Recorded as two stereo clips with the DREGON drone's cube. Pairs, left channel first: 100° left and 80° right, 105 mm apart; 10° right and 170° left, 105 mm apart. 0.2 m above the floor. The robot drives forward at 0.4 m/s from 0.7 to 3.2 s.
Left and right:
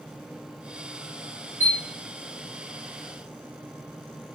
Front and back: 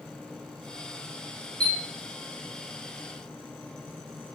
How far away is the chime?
About 1.4 m.